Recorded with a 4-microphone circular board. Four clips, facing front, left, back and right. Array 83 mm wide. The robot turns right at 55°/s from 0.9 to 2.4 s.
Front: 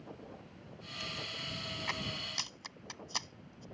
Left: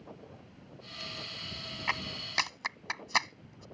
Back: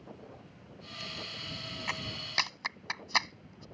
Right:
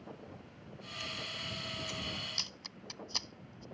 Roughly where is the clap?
Left.